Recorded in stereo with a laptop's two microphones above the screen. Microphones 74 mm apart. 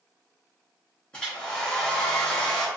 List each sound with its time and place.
1.1 s a hair dryer: 15° left (ahead or behind), 1.0 m